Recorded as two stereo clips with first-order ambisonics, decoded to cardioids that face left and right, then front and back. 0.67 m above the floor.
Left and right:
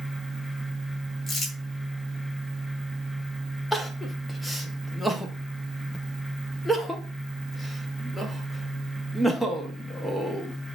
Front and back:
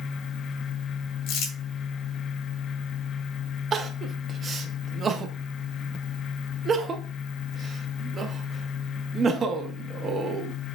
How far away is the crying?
About 0.6 m.